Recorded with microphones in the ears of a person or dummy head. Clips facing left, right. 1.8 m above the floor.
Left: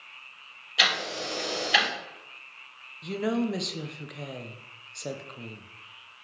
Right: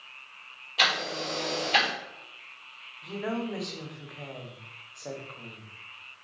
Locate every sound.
0.8 s ticking: 10° left (ahead or behind), 2.5 m
3.0 s a woman speaking: 35° left (ahead or behind), 0.8 m